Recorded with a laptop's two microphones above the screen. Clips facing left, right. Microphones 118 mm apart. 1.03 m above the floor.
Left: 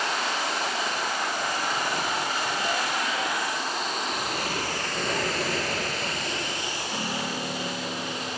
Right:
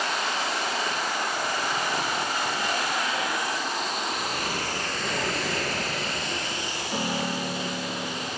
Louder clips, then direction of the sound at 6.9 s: Right 4 dB; 20° right (ahead or behind).